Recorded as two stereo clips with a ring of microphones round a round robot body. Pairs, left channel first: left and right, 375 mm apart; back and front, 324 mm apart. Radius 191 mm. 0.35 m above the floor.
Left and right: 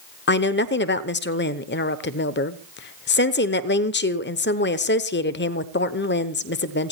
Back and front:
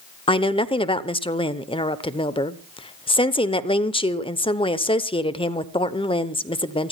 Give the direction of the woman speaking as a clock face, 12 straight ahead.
8 o'clock.